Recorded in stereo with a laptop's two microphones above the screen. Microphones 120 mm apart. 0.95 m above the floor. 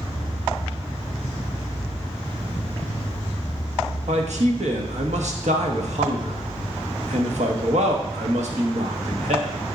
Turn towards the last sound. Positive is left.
turn(degrees=-75)  # may be behind; listen again after turning